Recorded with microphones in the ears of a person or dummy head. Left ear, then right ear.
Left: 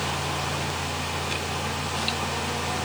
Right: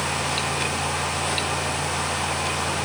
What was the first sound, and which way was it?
Only background noise.